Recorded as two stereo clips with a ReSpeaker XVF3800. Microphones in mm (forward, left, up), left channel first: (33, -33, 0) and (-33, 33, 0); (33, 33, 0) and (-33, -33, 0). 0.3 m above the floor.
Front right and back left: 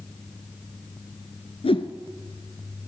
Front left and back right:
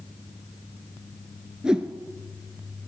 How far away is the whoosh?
About 0.9 m.